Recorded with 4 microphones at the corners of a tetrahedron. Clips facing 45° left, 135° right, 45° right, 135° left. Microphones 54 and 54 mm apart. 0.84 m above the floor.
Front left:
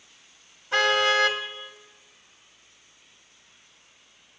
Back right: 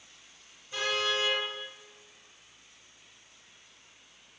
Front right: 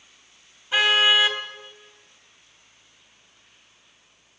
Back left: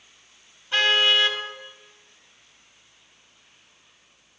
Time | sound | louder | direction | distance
0.7 | a car horn | front left 9 dB, front right 1 dB | 35° left | 2 m